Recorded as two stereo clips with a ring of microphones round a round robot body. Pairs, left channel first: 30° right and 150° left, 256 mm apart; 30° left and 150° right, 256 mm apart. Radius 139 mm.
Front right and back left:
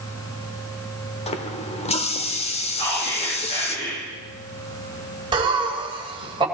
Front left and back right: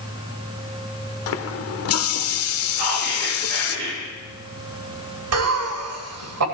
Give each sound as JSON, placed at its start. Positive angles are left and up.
{"t": 1.3, "sound": "a running tap", "azimuth_deg": 35, "distance_m": 1.1}
{"t": 2.8, "sound": "whispering", "azimuth_deg": -95, "distance_m": 7.0}
{"t": 5.3, "sound": "laughter", "azimuth_deg": -140, "distance_m": 3.0}